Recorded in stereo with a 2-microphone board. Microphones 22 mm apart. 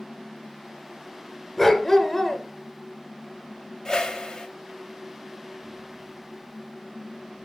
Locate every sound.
1.6 s a dog barking: 15° left (ahead or behind), 1.8 m
3.9 s a whoosh: 30° left (ahead or behind), 1.8 m